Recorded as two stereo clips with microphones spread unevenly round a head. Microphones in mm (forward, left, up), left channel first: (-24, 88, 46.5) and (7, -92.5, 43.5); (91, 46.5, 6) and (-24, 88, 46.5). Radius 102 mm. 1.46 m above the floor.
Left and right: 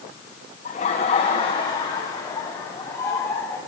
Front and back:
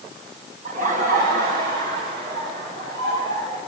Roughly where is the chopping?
No chopping in this recording.